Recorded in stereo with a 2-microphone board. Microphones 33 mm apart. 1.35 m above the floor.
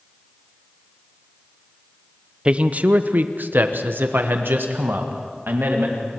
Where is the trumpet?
I don't hear a trumpet.